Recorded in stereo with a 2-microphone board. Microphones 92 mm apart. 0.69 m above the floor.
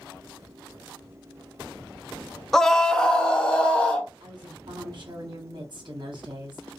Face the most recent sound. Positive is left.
turn(degrees=-55)  # may be behind; listen again after turning